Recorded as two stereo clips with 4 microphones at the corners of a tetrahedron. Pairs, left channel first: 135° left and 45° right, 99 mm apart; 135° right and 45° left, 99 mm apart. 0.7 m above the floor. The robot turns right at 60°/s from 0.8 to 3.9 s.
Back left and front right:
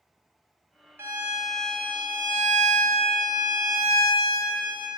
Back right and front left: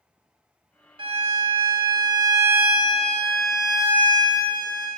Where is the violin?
20° left, 0.5 m; by 4.9 s 165° right, 0.5 m.